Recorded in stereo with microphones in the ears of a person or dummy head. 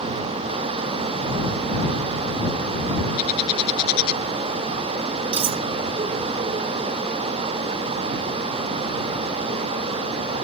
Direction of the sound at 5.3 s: 25° right (ahead or behind).